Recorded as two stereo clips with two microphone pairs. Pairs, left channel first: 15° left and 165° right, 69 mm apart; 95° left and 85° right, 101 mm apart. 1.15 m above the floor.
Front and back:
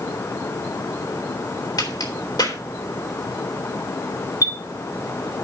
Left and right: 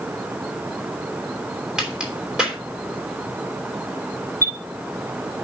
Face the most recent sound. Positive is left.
turn(degrees=25)